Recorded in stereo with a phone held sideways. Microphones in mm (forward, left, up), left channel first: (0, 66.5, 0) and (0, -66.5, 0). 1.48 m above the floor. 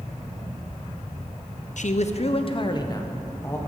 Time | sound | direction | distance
1.8 | a man speaking | 65° left (ahead or behind) | 0.7 m